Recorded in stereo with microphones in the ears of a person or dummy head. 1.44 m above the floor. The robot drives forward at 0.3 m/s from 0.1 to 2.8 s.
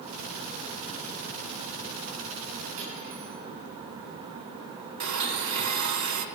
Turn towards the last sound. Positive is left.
turn(degrees=-65)  # may be behind; listen again after turning